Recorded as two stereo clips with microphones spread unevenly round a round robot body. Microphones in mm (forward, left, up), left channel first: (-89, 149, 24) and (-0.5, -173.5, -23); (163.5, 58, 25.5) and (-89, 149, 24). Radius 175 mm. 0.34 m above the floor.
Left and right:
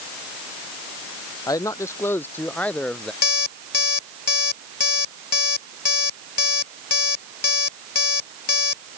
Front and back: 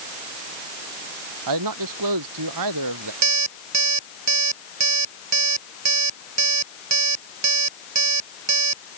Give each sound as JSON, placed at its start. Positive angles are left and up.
{"t": 1.5, "sound": "a man speaking", "azimuth_deg": -175}
{"t": 3.2, "sound": "an alarm clock", "azimuth_deg": 140}